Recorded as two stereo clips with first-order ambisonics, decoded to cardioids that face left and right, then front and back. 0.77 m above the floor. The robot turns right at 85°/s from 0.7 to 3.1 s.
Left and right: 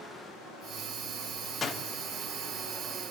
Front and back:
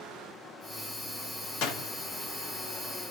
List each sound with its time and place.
1.6 s a door slam: 15° left, 1.0 m; by 1.9 s 40° left, 1.0 m